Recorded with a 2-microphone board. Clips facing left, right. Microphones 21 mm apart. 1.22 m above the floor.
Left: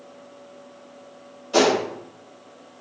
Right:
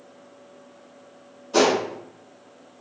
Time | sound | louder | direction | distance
1.5 | a gunshot | left 1 dB | 45° left (ahead or behind) | 1.2 m